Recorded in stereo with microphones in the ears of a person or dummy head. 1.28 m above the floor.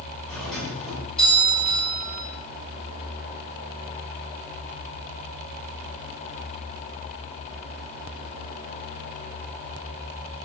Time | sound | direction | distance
0.3 | a doorbell | 10° left (ahead or behind) | 9.5 m